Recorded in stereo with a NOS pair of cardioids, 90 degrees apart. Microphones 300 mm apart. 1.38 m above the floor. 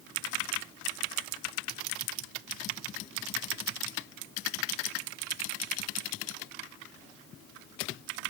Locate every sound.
Only background noise.